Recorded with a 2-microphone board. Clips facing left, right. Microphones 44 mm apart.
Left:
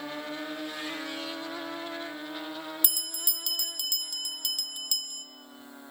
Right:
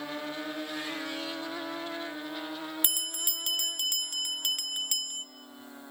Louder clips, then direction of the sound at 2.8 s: Right 3 dB; 45° right (ahead or behind).